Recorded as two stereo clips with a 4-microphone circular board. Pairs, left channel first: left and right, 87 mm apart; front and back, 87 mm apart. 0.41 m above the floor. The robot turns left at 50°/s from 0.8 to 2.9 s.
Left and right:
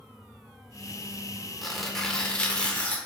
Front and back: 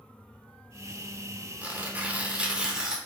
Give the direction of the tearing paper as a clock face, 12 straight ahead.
6 o'clock.